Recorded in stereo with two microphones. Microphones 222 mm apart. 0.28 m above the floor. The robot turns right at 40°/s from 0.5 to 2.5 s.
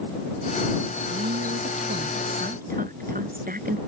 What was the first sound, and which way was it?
A woman speaking, 100° right.